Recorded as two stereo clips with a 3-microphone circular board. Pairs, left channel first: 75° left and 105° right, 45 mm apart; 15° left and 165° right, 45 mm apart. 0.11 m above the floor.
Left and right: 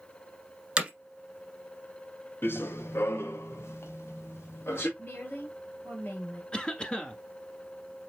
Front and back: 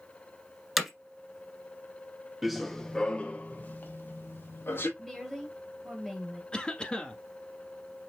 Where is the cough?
45° left, 1.2 m.